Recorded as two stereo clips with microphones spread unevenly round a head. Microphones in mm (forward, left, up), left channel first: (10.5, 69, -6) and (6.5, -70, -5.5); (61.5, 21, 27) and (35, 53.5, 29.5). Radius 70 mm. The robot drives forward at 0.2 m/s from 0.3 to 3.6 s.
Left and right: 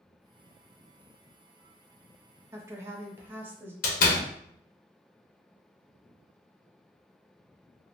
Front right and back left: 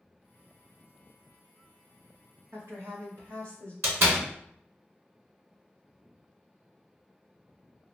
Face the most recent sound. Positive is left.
turn(degrees=110)